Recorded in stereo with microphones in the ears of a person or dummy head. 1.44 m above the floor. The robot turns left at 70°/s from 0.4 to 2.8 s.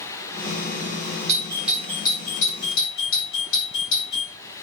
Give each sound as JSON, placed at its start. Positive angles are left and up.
{"t": 1.3, "sound": "a doorbell", "side_deg": -35, "distance_m": 5.5}